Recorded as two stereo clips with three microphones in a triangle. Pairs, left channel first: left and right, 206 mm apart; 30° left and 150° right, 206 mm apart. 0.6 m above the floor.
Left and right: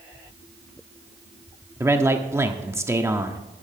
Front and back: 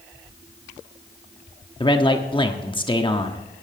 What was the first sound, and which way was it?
A man speaking, 20° right.